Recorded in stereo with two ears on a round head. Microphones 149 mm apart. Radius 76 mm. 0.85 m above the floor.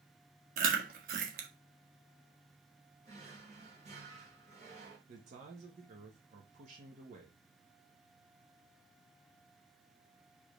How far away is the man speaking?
About 1.4 m.